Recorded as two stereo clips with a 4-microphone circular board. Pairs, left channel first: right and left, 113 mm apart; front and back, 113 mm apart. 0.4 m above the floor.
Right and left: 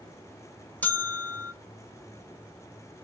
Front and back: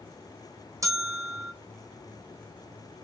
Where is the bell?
155° right, 1.0 m.